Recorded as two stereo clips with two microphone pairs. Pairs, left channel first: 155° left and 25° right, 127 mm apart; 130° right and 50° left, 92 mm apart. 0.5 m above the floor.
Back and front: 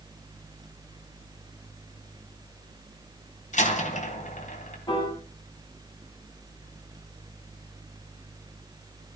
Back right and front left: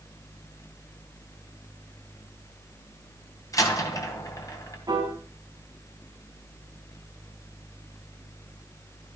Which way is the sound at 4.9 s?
100° left.